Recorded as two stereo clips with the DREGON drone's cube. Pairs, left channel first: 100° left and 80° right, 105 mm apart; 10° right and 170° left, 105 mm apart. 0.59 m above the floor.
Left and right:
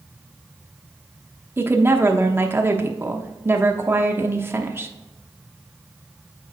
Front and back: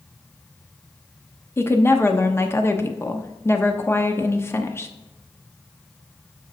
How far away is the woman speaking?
About 0.8 m.